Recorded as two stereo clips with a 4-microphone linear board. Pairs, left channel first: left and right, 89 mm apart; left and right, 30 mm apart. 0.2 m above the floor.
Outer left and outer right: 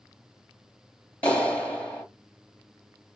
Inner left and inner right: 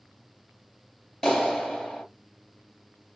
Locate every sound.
1.2 s a clap: 15° left (ahead or behind), 3 m